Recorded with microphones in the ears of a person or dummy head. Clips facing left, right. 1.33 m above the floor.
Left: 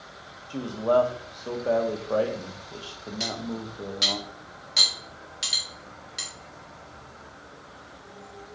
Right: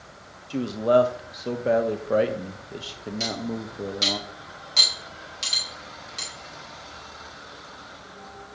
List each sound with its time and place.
0.5 s a man speaking: 25° right (ahead or behind), 0.7 m
3.2 s cutlery clinking: 15° left (ahead or behind), 1.9 m